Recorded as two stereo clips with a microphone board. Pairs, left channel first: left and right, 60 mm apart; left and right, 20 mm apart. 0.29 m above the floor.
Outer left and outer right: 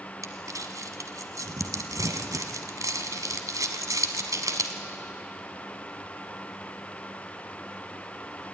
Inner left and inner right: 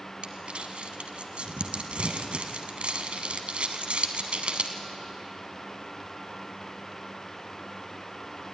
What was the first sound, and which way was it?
Crumpling, 65° right (ahead or behind).